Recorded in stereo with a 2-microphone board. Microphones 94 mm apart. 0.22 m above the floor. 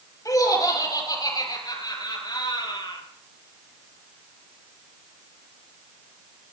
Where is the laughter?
40° left (ahead or behind), 5.5 m; by 3.0 s 55° left (ahead or behind), 5 m.